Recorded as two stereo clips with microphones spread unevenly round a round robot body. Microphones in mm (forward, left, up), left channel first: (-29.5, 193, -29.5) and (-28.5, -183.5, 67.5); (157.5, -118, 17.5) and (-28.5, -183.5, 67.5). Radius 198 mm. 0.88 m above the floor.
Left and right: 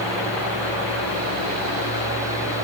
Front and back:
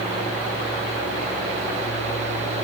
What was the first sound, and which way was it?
Only background noise.